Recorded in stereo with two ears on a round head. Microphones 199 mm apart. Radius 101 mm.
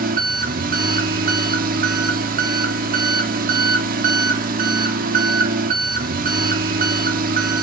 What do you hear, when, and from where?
0.0 s an engine running: 40° right (ahead or behind), 0.8 m